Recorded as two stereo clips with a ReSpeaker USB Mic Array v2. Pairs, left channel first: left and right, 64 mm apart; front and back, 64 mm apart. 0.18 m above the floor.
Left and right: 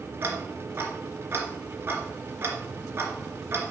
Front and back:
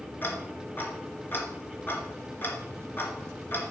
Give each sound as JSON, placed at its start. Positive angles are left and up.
{"t": 0.2, "sound": "ticking", "azimuth_deg": -50, "distance_m": 2.5}